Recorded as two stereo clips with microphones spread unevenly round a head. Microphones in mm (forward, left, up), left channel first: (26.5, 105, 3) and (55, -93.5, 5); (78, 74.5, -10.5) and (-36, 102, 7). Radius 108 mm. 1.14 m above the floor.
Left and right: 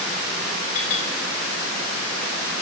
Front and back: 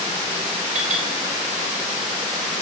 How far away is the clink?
About 3 m.